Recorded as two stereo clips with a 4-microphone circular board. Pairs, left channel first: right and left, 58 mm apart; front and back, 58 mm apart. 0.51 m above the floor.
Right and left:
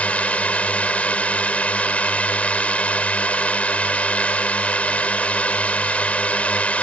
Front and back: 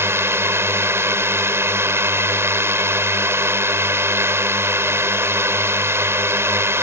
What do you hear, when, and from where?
0.0 s a drone: 150° right